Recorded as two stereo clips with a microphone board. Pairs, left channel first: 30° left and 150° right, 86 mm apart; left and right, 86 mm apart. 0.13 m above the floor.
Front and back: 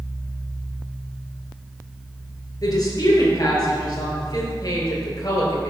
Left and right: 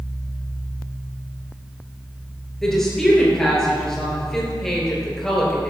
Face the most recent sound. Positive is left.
turn(degrees=5)